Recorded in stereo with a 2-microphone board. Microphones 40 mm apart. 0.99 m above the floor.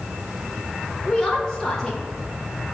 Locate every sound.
1.1 s a woman speaking: 20° left (ahead or behind), 0.6 m